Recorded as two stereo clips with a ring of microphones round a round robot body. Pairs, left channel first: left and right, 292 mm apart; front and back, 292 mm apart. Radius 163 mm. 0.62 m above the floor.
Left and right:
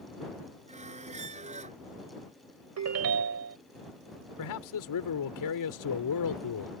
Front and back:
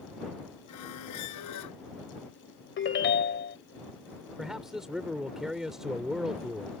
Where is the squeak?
25° right.